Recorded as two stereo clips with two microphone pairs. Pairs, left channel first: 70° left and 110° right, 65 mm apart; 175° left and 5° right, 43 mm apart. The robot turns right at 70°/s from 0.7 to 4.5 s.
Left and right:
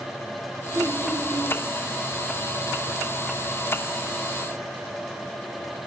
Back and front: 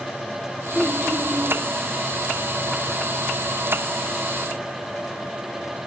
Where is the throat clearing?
115° right, 4.5 m; by 1.6 s 50° right, 4.5 m.